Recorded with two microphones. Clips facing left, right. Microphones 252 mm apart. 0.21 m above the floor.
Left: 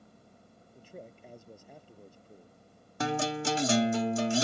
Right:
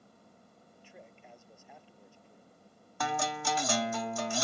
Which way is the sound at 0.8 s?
40° left (ahead or behind).